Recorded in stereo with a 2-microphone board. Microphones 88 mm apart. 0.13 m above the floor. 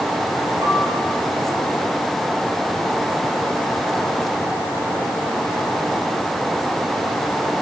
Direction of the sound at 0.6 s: 45° right (ahead or behind).